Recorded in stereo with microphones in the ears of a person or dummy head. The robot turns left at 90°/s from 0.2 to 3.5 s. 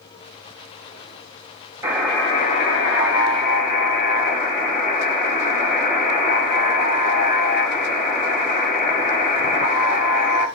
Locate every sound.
1.8 s a buzzer: 160° right, 2.5 m; by 10.5 s 45° left, 2.5 m